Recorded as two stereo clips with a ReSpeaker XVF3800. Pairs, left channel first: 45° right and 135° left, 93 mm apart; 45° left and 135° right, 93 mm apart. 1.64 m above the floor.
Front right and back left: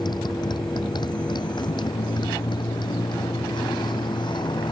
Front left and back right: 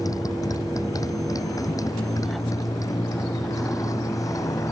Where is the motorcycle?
5° right; by 4.7 s 10° right.